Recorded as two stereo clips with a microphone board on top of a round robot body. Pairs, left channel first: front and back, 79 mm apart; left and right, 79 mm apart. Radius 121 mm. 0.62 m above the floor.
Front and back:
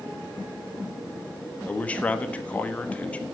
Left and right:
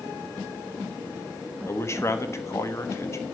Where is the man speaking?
65° left, 1.3 m.